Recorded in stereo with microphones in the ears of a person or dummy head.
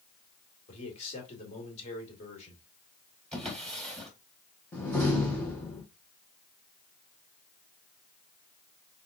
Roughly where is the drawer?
Centre.